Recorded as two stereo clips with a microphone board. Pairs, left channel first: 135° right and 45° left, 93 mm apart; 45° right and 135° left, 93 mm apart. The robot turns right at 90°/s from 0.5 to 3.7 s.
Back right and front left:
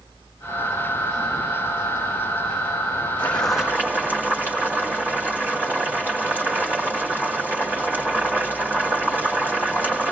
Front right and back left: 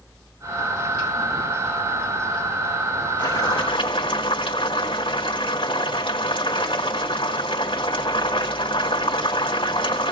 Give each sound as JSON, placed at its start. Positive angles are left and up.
{"t": 3.2, "sound": "boiling", "azimuth_deg": -70, "distance_m": 3.5}